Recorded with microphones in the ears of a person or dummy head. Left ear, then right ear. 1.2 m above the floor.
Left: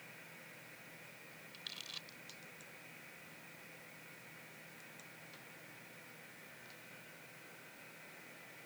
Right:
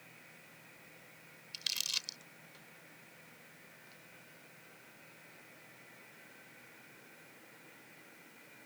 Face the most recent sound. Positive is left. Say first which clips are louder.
# right 12 dB
turn(degrees=-75)  # may be behind; listen again after turning